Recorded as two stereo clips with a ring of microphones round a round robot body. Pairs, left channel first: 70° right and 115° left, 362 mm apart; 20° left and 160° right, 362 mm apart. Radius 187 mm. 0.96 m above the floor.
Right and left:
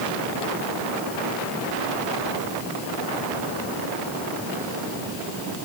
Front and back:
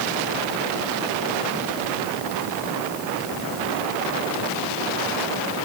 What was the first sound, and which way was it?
Only background noise.